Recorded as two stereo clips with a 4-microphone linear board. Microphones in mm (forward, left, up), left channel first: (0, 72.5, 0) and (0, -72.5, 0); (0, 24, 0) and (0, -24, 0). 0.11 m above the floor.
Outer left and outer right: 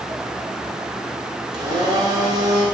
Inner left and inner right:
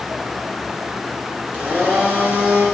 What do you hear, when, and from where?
1.5 s a blender: 35° right (ahead or behind), 1.6 m